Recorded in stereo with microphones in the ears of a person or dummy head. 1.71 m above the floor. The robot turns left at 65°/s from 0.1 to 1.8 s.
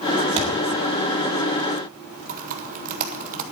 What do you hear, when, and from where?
0.4 s a thud: 30° right (ahead or behind), 1.7 m; by 0.5 s 35° right (ahead or behind), 1.7 m
2.3 s typing on a keyboard: 40° right (ahead or behind), 1.6 m